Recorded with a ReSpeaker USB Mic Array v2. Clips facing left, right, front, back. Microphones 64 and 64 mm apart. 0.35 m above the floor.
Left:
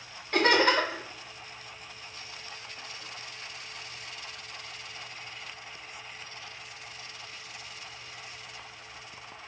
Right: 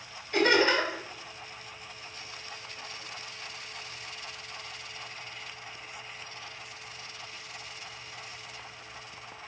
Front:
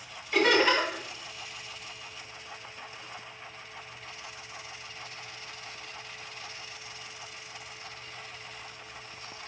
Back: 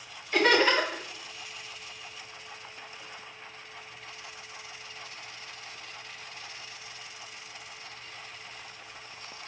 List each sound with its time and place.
0.3 s laughter: 85° left, 3 m